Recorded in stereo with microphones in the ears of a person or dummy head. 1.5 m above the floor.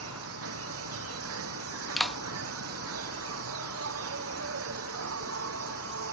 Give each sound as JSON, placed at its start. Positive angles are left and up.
{"t": 0.0, "sound": "an insect", "side_deg": -65}
{"t": 2.0, "sound": "a clap", "side_deg": 0}